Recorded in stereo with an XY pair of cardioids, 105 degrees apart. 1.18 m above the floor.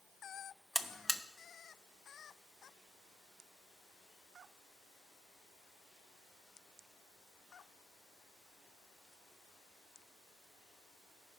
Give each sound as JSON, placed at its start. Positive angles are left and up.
{"t": 0.8, "sound": "a buzzer", "azimuth_deg": -5, "distance_m": 0.9}